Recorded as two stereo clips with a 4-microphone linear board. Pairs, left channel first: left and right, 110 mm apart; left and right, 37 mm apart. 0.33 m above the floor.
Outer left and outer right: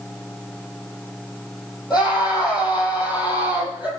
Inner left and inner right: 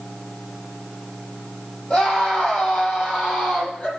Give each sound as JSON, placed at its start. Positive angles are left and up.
{"t": 1.9, "sound": "a scream", "side_deg": 35, "distance_m": 10.0}